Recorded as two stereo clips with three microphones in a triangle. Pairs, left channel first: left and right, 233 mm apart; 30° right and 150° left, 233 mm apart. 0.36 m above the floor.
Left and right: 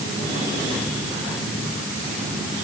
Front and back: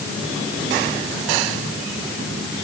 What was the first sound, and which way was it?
Only background noise.